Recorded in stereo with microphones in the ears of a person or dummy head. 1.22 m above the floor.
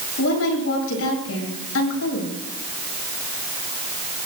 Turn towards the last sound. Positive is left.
turn(degrees=75)  # may be behind; listen again after turning